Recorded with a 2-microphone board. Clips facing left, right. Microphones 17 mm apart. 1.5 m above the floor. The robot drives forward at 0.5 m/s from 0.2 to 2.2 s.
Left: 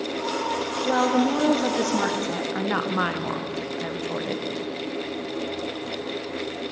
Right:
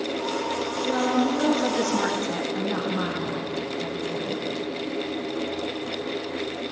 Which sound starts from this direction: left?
A woman speaking, at 0.8 s.